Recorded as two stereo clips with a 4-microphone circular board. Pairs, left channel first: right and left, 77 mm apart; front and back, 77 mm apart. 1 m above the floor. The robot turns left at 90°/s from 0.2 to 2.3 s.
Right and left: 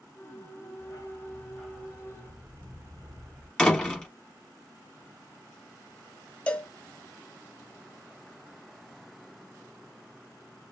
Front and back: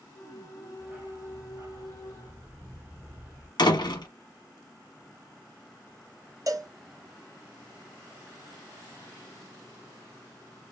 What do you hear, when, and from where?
0.8 s a dog barking: 100° right, 1.2 m; by 3.5 s 125° left, 1.2 m
3.6 s a door slam: 10° right, 0.9 m
6.5 s a cowbell: 160° right, 0.6 m